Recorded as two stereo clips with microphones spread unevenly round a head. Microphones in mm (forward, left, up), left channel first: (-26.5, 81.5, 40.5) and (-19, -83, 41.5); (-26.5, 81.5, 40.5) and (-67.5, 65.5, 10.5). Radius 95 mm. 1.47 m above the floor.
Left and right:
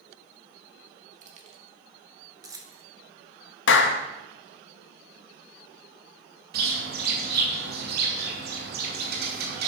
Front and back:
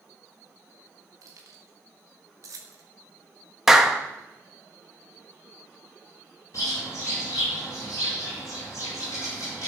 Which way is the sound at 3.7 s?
110° left.